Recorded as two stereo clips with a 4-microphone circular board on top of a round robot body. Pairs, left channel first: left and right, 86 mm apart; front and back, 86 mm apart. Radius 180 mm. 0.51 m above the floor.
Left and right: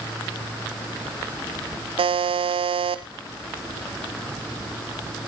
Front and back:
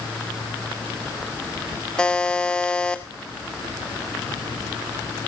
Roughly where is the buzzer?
Right.